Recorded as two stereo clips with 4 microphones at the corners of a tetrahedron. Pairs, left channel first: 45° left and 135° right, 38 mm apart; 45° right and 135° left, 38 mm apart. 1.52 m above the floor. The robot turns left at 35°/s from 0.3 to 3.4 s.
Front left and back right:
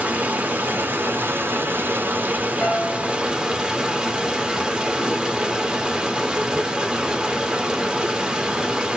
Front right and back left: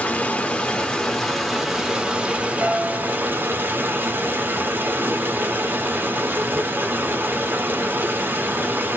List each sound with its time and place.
0.0 s running water: 95° right, 0.8 m; by 9.0 s 160° left, 0.8 m
2.6 s a piano: 100° left, 0.6 m; by 3.2 s 80° left, 0.6 m